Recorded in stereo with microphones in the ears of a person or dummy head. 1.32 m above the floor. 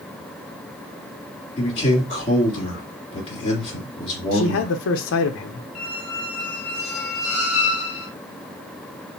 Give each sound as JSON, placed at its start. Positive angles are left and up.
{"t": 1.6, "sound": "a man speaking", "side_deg": 30, "distance_m": 2.5}
{"t": 4.3, "sound": "a man speaking", "side_deg": 65, "distance_m": 0.5}
{"t": 5.8, "sound": "a squeak", "side_deg": 30, "distance_m": 1.9}